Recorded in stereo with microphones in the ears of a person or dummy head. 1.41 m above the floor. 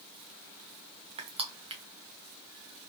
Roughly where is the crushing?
Right.